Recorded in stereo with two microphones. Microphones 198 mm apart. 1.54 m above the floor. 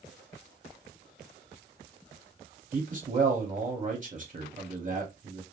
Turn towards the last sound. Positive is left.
turn(degrees=-40)  # may be behind; listen again after turning